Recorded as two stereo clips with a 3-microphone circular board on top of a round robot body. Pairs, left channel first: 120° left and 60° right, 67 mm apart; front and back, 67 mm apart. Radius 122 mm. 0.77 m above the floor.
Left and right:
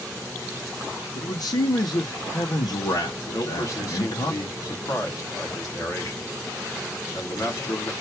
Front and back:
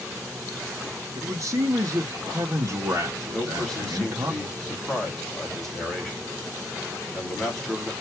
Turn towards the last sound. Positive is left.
turn(degrees=80)